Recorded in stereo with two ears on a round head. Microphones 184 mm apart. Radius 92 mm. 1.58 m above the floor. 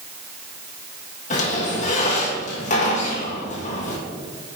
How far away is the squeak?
About 1.4 m.